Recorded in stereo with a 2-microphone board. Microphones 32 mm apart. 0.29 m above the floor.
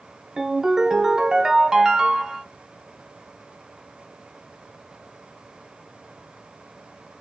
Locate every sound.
0.4 s a ringtone: 20° right (ahead or behind), 0.6 m